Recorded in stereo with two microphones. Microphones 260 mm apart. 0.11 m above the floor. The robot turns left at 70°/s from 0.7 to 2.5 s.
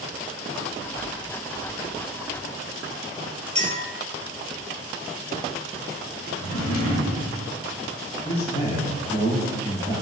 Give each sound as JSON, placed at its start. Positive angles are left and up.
{"t": 3.5, "sound": "a clink", "side_deg": -25, "distance_m": 1.1}
{"t": 6.4, "sound": "a drawer", "side_deg": 60, "distance_m": 1.2}
{"t": 8.2, "sound": "a man speaking", "side_deg": 35, "distance_m": 1.8}